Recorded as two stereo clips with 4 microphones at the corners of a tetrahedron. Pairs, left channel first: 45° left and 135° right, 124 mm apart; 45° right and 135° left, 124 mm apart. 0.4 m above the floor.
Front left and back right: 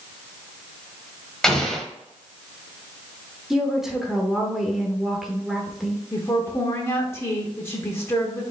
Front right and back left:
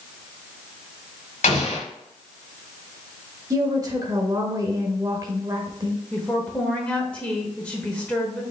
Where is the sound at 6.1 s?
20° left, 1.0 m.